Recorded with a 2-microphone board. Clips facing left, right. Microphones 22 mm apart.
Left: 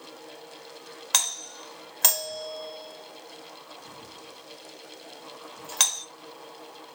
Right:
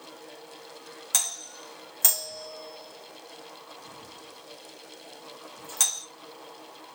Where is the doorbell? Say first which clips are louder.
Left 3 dB; 35° left (ahead or behind), 1.2 m.